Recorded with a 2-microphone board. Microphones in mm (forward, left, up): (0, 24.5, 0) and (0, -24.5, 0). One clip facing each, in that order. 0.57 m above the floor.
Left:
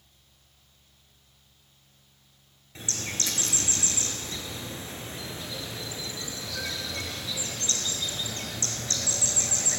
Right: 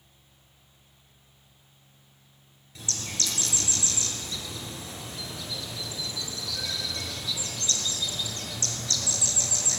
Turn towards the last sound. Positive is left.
turn(degrees=30)  # may be behind; listen again after turning